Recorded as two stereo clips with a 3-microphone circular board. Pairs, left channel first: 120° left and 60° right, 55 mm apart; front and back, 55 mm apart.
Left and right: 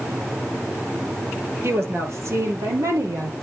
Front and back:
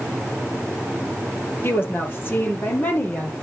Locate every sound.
1.6 s a woman speaking: 35° right, 2 m; by 3.3 s 60° right, 3 m